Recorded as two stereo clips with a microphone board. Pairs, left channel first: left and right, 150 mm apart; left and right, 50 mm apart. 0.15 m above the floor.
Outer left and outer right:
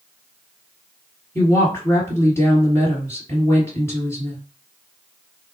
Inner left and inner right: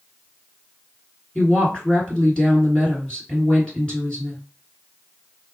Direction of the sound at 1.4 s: 20° left (ahead or behind).